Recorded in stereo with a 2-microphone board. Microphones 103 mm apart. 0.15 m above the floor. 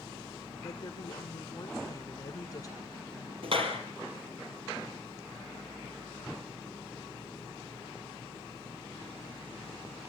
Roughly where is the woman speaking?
Left.